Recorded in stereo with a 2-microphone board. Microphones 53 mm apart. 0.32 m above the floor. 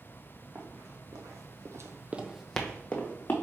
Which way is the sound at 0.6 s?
65° right (ahead or behind).